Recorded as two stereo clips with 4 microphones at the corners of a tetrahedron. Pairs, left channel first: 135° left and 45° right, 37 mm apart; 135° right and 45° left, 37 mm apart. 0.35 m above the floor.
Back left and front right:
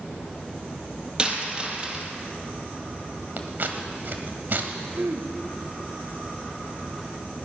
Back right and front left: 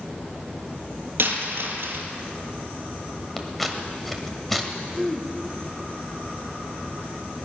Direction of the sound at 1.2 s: 20° left.